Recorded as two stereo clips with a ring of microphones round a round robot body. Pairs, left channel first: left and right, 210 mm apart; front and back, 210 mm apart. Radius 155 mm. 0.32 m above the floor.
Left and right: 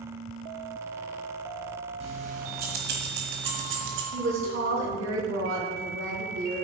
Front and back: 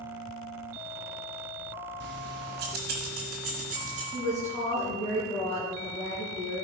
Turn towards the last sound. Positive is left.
turn(degrees=-80)